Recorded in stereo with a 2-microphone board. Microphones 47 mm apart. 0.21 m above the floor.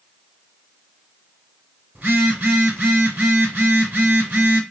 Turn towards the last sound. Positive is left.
turn(degrees=-40)  # may be behind; listen again after turning